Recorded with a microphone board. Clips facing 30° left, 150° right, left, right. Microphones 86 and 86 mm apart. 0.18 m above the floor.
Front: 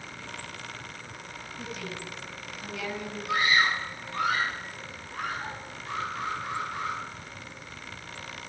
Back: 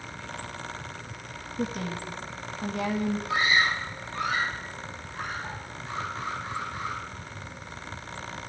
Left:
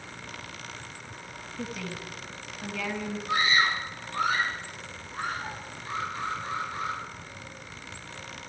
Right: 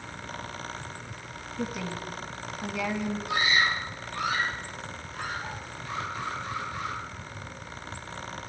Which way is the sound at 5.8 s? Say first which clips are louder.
Front 1 dB, left 2 dB; 30° left.